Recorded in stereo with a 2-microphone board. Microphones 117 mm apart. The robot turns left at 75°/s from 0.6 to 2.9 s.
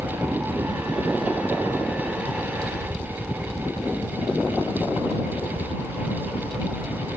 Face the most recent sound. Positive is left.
turn(degrees=55)